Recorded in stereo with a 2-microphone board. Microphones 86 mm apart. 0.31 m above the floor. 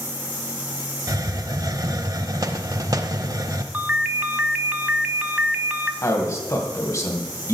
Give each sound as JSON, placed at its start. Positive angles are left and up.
{"t": 1.1, "sound": "a hiss", "side_deg": -45, "distance_m": 0.6}
{"t": 3.7, "sound": "a ringtone", "side_deg": -20, "distance_m": 0.7}
{"t": 6.0, "sound": "a man speaking", "side_deg": 40, "distance_m": 2.0}